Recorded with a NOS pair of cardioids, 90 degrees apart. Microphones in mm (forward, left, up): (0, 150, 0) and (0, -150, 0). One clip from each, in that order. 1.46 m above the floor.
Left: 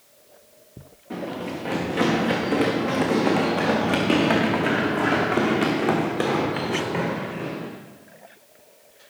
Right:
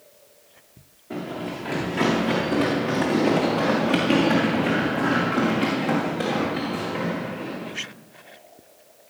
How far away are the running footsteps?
About 6 m.